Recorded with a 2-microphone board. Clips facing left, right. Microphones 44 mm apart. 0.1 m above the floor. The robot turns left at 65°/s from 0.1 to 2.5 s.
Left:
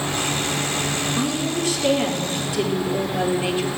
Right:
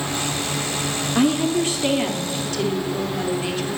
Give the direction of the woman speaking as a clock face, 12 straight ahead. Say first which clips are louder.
Right 9 dB; 4 o'clock.